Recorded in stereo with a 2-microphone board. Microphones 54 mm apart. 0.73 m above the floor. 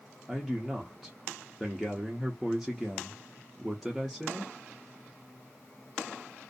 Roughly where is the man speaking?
Centre.